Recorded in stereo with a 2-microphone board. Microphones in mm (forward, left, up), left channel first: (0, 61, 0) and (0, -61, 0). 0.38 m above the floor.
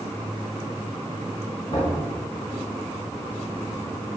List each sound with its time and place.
1.7 s knocking: 45° left (ahead or behind), 3 m